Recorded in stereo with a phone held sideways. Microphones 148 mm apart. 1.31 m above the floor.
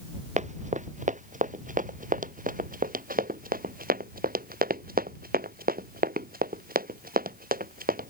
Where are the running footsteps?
55° right (ahead or behind); by 8.1 s 80° right.